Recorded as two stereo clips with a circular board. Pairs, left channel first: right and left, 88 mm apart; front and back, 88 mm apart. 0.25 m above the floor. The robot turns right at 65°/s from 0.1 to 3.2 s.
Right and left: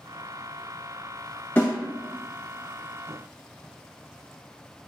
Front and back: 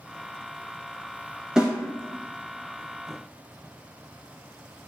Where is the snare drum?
115° right, 0.8 m; by 1.7 s 100° right, 0.8 m.